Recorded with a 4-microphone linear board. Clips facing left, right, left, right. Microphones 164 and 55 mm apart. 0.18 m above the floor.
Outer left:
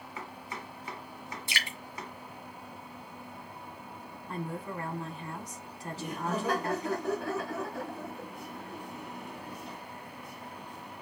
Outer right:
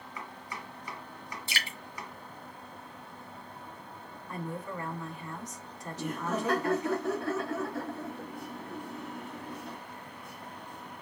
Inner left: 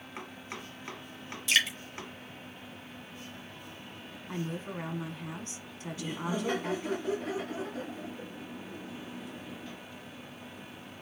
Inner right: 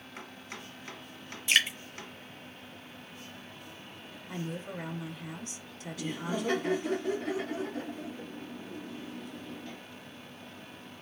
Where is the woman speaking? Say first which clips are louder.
Outer left 1 dB, inner left 1 dB; 35° left (ahead or behind), 1.2 m.